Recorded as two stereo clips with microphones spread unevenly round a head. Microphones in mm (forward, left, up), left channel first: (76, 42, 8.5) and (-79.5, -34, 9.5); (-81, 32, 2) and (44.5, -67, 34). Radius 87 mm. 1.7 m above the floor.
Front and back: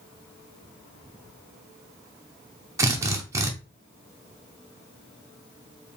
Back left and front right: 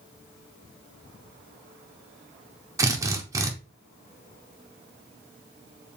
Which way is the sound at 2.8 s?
85° right.